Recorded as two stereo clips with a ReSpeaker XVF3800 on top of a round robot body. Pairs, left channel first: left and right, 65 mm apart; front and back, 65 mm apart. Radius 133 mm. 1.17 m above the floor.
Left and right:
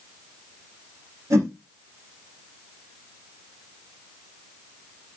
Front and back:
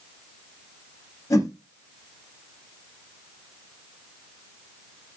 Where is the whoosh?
45° right, 3.5 m.